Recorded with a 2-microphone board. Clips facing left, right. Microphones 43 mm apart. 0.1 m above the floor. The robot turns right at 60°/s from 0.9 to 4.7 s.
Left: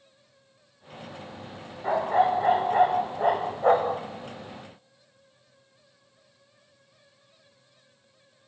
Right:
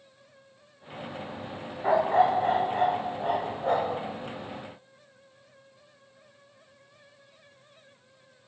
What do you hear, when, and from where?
1.8 s a dog barking: 15° right, 2 m; by 4.0 s 115° left, 2 m